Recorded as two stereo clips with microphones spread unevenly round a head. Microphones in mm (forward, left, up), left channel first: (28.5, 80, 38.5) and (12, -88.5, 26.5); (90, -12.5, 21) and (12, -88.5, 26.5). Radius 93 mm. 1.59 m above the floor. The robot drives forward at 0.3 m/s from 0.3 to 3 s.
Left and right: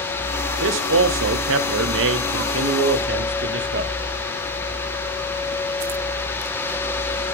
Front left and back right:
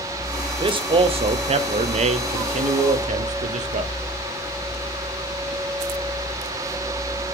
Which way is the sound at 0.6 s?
90° right.